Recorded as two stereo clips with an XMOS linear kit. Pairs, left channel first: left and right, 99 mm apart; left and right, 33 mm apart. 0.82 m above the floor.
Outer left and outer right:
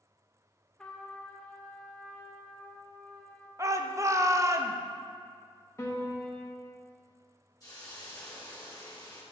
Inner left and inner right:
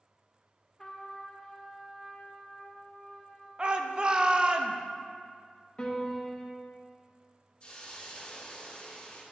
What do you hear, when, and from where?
0.8 s a trumpet: 10° left (ahead or behind), 0.8 m
3.6 s a shout: 30° right (ahead or behind), 0.6 m
5.8 s a piano: 30° left (ahead or behind), 1.1 m
7.6 s a hiss: 40° left (ahead or behind), 1.7 m